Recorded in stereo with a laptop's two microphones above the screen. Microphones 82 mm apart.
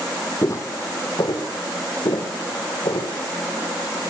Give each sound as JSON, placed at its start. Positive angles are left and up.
{"t": 0.4, "sound": "footsteps", "side_deg": 40, "distance_m": 2.0}